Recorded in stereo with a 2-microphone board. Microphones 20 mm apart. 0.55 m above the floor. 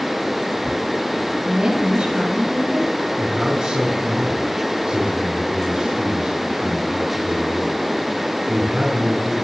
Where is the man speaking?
65° right (ahead or behind), 4.5 m.